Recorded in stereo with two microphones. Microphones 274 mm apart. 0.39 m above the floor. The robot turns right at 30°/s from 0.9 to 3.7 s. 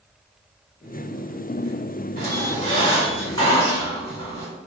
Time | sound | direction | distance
2.2 | a squeak | 145° right | 1.5 m